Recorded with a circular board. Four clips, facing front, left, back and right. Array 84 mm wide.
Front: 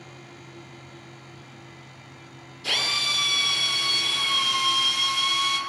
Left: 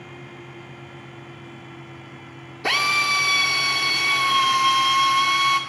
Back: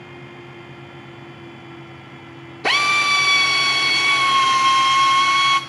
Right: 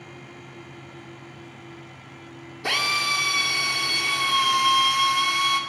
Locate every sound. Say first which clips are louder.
2.6 s a drill: left 4 dB, back 12 dB; 170° left, 2 m